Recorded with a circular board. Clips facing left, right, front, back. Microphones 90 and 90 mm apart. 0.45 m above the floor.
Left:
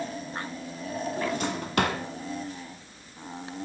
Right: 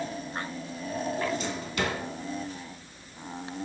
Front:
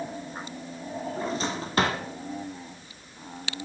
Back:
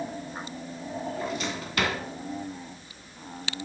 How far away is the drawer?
About 1.1 m.